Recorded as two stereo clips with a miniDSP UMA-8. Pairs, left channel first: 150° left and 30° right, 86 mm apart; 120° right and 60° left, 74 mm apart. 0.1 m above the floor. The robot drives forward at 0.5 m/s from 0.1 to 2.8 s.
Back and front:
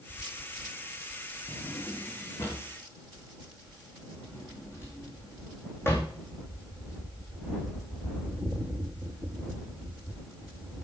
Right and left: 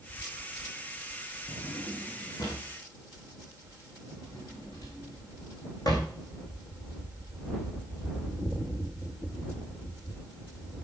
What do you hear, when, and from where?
1.5 s a drawer: 145° right, 3.5 m; by 6.1 s 150° right, 4 m